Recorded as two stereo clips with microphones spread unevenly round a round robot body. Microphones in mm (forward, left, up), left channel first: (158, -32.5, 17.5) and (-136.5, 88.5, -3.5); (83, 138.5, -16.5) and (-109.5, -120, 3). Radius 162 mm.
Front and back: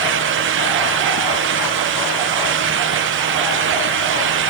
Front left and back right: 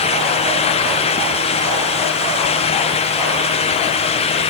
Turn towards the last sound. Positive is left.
No sound to turn to.